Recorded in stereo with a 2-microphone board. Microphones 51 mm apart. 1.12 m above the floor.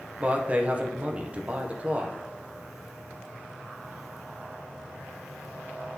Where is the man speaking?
30° right (ahead or behind), 0.8 m.